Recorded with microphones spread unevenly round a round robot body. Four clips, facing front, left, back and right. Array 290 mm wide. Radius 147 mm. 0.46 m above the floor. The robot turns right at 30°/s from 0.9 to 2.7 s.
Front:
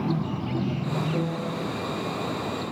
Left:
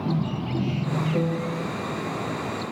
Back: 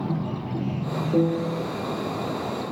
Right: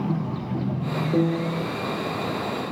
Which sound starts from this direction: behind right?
A piano, at 1.1 s.